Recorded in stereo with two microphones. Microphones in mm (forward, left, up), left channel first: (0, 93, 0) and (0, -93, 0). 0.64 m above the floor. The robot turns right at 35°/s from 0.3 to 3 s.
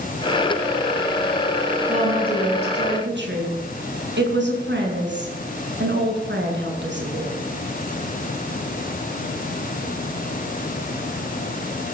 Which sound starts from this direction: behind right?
A woman speaking, at 1.9 s.